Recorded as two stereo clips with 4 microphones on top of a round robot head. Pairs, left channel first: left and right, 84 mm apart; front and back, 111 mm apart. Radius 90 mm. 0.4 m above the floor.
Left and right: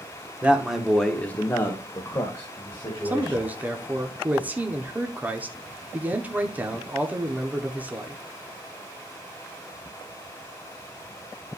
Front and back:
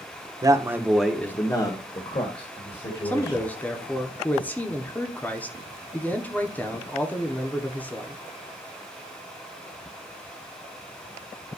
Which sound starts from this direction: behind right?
A man speaking, at 0.4 s.